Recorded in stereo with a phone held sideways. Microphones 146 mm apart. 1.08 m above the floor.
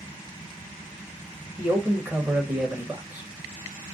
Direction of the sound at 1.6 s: 10° right (ahead or behind).